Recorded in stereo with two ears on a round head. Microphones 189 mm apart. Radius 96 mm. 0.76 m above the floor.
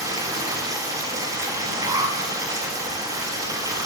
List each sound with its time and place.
0.0 s running water: 15° right (ahead or behind), 3 m
1.8 s an alarm: 20° right (ahead or behind), 1.1 m